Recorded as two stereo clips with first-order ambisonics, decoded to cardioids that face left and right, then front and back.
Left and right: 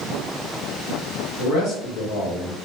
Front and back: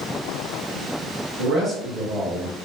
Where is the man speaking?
120° left, 1.6 m; by 2.5 s 90° left, 1.3 m.